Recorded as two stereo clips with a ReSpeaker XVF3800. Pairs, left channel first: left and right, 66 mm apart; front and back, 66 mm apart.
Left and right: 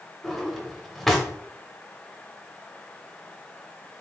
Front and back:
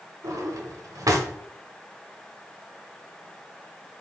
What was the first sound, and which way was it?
A drawer, straight behind.